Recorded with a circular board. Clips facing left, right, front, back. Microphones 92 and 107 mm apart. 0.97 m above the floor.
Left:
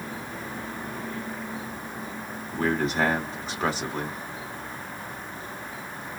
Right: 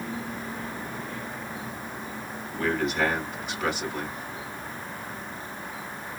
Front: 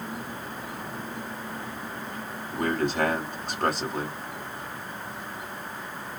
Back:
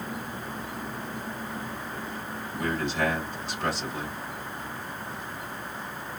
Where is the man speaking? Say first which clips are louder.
Left 1 dB, front 4 dB; 35° left, 2.5 m.